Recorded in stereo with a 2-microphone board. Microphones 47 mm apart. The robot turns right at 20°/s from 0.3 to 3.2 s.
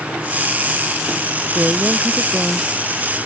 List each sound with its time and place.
1.6 s a woman speaking: 30° right (ahead or behind); by 2.9 s 25° right (ahead or behind)